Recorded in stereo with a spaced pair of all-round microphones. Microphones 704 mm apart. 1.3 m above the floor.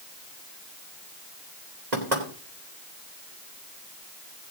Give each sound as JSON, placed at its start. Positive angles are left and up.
{"t": 1.9, "sound": "knocking", "side_deg": -65, "distance_m": 4.0}